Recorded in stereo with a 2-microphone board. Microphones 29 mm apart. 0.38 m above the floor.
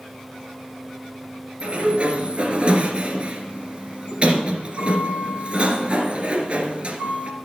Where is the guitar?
I don't hear a guitar.